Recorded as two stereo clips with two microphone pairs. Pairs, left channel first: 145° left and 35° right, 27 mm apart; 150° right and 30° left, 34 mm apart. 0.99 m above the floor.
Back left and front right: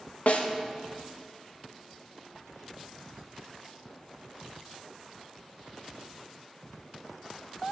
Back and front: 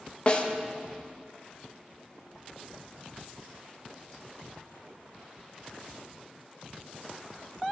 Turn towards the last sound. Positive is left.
turn(degrees=155)